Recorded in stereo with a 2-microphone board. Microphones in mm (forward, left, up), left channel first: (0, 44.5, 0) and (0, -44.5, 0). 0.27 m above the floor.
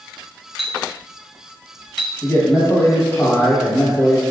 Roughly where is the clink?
Centre.